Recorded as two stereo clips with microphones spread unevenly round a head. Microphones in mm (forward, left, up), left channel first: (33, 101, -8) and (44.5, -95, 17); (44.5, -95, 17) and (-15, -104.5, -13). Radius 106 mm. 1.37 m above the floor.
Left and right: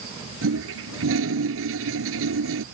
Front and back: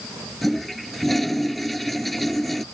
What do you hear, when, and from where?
0.4 s a toilet flushing: 75° right